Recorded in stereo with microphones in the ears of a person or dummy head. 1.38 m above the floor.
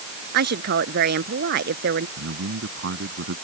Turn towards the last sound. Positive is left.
turn(degrees=-65)  # may be behind; listen again after turning